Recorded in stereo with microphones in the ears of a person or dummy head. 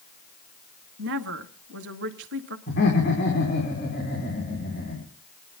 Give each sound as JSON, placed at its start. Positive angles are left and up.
{"t": 1.0, "sound": "a woman speaking", "side_deg": -70, "distance_m": 1.4}
{"t": 2.7, "sound": "laughter", "side_deg": 50, "distance_m": 5.0}